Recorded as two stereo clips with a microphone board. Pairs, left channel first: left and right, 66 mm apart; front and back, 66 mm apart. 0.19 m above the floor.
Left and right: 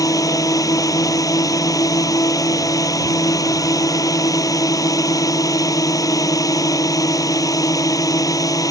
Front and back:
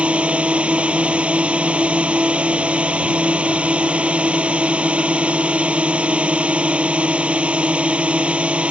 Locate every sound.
0.0 s a drone: 110° left